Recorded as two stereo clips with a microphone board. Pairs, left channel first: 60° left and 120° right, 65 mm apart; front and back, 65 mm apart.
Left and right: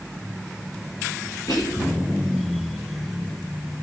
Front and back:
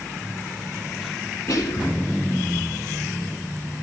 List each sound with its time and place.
1.5 s whispering: 35° left, 6 m